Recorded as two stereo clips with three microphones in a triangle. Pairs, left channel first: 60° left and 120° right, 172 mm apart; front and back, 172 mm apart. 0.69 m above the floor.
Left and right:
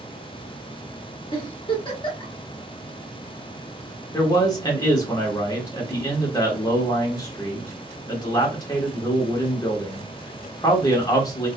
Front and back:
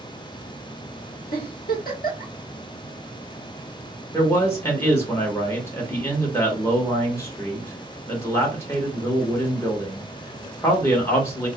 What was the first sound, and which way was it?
A giggle, straight ahead.